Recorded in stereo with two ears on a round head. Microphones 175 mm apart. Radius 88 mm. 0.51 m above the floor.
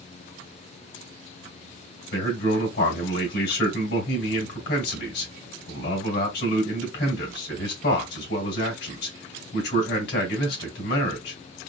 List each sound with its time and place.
2.1 s a man speaking: 60° left (ahead or behind), 2.5 m